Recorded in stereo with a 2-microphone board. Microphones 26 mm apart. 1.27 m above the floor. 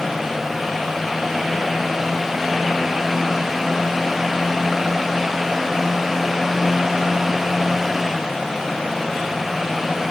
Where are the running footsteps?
No running footsteps in this recording.